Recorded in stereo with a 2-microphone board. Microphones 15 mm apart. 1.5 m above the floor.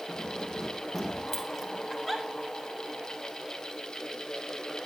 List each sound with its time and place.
0.1 s keys jangling: 5° left (ahead or behind), 8 m; by 1.8 s 15° left (ahead or behind), 6 m
1.9 s a giggle: centre (ahead or behind), 4.5 m